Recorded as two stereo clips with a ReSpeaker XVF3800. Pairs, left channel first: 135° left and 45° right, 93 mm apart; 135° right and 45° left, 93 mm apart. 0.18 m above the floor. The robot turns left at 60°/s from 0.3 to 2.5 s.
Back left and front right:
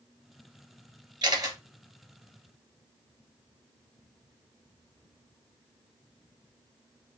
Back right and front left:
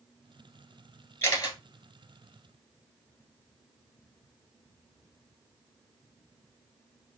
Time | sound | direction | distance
1.2 | a camera shutter | 80° right | 1.2 m